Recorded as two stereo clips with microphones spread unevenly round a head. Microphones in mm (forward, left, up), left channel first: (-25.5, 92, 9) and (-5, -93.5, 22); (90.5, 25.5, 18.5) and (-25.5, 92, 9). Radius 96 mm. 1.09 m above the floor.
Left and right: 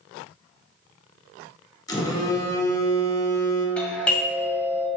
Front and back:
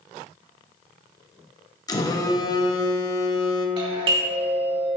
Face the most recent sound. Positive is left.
turn(degrees=175)